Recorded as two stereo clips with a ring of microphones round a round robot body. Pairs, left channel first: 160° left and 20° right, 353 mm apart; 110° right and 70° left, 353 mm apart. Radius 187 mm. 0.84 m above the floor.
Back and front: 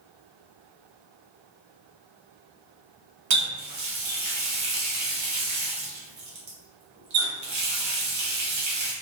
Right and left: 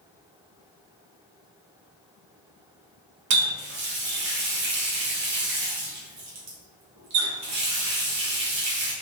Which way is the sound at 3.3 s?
25° left.